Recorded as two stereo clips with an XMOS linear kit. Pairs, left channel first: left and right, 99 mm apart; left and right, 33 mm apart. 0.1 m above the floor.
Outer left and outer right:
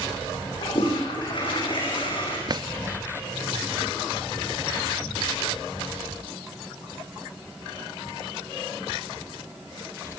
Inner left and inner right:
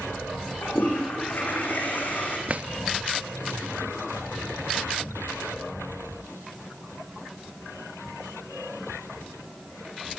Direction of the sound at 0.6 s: 55° left (ahead or behind).